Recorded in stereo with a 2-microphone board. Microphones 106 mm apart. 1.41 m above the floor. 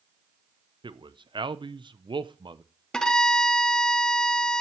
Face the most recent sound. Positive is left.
turn(degrees=5)  # may be behind; listen again after turning